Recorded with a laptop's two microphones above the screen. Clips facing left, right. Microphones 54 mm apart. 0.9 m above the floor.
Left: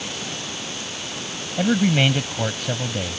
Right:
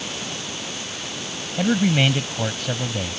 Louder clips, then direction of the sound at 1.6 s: Even; 5° left (ahead or behind).